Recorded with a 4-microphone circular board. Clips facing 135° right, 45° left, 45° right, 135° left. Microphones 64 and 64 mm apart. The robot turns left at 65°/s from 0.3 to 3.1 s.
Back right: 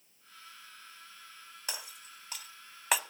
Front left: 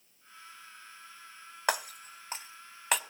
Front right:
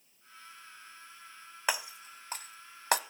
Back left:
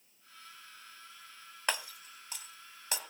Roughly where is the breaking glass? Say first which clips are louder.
Front left 14 dB, front right 2 dB; ahead left.